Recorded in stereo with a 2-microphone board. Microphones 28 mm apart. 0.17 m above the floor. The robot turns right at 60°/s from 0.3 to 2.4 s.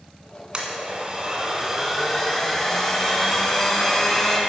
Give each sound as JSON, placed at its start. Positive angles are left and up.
{"t": 0.5, "sound": "a blender", "azimuth_deg": -95, "distance_m": 1.5}